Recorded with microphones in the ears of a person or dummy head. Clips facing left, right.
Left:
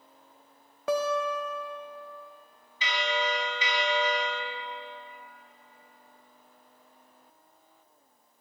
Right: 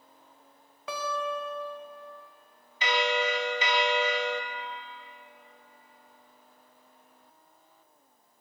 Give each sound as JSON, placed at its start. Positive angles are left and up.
{"t": 0.9, "sound": "a guitar", "side_deg": 30, "distance_m": 0.7}
{"t": 2.8, "sound": "a bell", "side_deg": -40, "distance_m": 0.6}